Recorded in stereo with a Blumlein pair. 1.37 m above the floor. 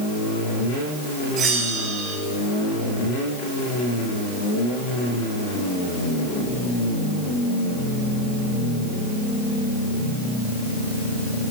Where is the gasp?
No gasp in this recording.